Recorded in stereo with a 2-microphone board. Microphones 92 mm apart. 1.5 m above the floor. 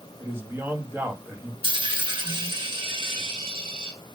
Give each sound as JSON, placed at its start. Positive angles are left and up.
{"t": 0.2, "sound": "a man speaking", "side_deg": -25, "distance_m": 2.0}
{"t": 1.6, "sound": "a dropped coin", "side_deg": -70, "distance_m": 3.0}